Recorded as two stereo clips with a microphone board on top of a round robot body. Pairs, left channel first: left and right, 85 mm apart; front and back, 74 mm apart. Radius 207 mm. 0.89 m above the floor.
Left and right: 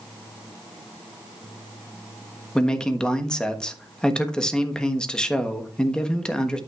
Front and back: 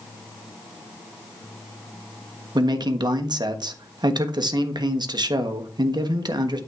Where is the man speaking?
170° left, 1.2 m.